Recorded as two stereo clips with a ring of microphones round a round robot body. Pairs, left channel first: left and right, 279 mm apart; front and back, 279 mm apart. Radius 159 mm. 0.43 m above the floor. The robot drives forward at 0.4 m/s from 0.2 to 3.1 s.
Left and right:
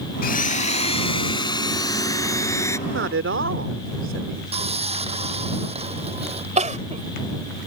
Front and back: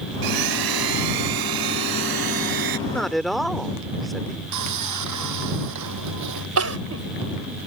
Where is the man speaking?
85° right; by 4.4 s 90° right.